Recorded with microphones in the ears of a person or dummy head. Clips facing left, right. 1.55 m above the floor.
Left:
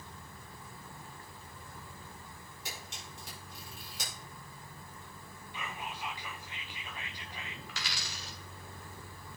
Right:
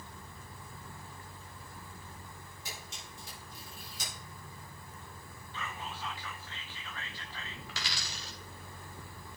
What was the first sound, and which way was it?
A camera shutter, 65° left (ahead or behind).